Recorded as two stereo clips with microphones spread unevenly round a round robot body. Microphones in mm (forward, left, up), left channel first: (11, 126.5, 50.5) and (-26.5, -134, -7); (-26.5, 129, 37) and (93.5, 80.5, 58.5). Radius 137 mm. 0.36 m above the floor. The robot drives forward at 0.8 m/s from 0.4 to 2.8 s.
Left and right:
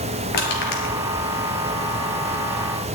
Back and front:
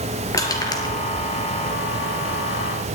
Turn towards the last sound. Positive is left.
turn(degrees=120)